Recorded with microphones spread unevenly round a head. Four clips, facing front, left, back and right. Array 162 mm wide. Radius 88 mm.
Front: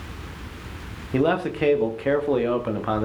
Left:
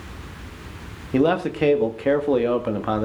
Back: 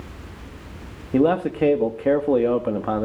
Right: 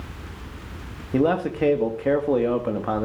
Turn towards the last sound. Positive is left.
turn(degrees=175)